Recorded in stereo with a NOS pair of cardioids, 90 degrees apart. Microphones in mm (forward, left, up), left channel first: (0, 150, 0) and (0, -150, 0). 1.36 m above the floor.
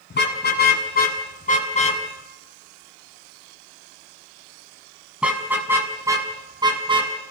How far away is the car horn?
About 7.5 m.